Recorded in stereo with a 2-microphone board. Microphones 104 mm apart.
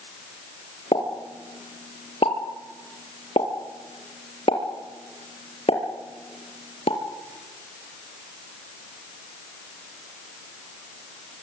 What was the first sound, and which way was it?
A pop, 75° left (ahead or behind).